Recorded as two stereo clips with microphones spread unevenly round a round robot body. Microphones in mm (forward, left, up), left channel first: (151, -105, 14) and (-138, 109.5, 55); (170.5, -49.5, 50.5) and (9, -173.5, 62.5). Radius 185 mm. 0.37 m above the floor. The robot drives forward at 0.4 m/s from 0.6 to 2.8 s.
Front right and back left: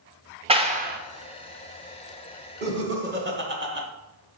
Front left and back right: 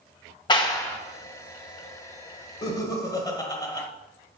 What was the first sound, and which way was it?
A clap, 70° left.